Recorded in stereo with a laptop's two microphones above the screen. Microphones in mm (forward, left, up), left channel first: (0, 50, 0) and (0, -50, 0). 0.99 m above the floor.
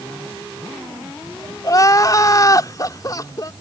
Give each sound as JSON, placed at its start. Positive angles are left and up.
{"t": 1.6, "sound": "crying", "side_deg": 35}